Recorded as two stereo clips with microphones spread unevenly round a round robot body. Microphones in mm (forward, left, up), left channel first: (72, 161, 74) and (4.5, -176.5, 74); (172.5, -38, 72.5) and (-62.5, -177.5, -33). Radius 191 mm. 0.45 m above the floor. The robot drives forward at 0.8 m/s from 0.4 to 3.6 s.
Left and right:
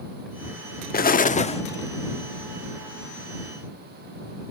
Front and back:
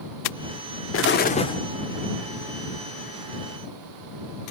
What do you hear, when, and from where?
0.9 s an explosion: 60° left, 0.8 m; by 1.6 s 140° left, 0.9 m